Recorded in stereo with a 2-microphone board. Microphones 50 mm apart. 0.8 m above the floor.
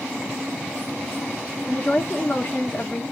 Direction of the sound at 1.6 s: 35° left (ahead or behind).